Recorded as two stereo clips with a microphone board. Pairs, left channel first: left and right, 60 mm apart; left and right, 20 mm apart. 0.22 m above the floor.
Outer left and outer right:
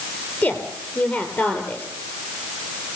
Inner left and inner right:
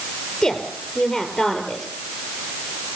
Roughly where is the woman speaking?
Left.